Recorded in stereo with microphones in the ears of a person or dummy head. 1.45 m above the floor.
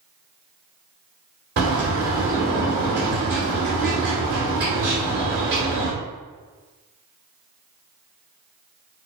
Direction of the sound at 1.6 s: 55° right (ahead or behind).